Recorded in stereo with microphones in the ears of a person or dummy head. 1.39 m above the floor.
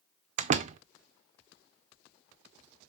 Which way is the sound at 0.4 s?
40° right (ahead or behind).